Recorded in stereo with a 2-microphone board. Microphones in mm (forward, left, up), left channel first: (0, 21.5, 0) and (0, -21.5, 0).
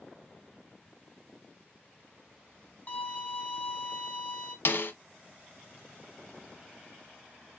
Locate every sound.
2.9 s a violin: 35° left (ahead or behind), 1.1 m
4.7 s a snare drum: 55° left (ahead or behind), 0.7 m